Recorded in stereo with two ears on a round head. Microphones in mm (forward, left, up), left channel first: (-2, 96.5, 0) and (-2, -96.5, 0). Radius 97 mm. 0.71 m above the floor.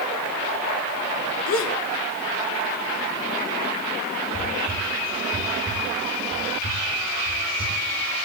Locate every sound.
1.5 s a gasp: 70° left (ahead or behind), 1.6 m
4.3 s whispering: 40° left (ahead or behind), 2.5 m